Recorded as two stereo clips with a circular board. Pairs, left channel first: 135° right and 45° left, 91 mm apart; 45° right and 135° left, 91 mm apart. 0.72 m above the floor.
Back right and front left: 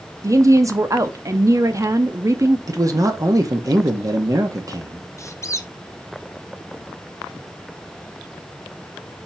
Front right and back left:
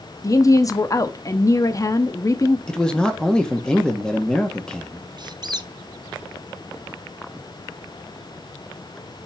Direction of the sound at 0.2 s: Straight ahead.